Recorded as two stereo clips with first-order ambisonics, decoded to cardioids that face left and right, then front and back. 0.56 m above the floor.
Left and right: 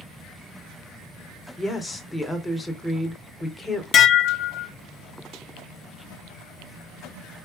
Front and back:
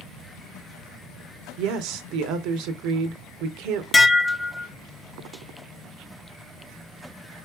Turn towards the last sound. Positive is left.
turn(degrees=70)